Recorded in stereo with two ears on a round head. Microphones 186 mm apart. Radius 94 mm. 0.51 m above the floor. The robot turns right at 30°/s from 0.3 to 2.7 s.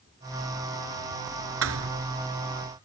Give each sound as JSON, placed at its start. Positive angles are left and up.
{"t": 1.6, "sound": "a thud", "side_deg": -80}